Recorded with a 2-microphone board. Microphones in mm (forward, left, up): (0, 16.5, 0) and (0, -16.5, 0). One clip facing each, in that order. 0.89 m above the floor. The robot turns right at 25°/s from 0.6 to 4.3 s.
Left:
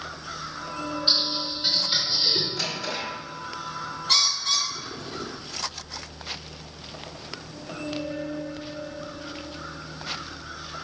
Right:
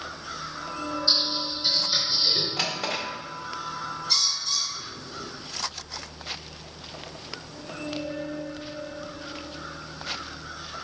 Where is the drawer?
45° right (ahead or behind), 1.9 m; by 3.0 s 55° right (ahead or behind), 1.9 m.